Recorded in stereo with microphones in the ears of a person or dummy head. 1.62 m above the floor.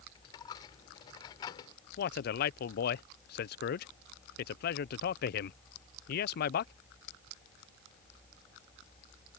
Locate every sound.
0.1 s a dropped coin: 25° left (ahead or behind)
2.0 s a man speaking: 60° left (ahead or behind)